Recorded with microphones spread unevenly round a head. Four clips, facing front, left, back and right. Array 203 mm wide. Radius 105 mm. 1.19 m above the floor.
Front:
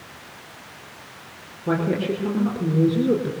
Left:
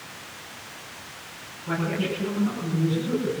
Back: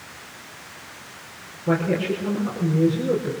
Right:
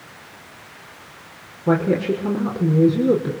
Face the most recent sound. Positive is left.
turn(degrees=-75)